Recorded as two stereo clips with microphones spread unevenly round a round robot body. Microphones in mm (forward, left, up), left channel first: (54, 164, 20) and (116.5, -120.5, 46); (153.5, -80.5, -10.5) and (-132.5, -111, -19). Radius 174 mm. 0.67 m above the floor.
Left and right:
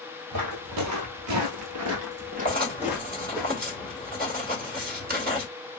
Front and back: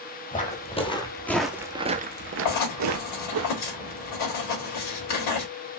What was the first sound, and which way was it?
Footsteps, 55° right.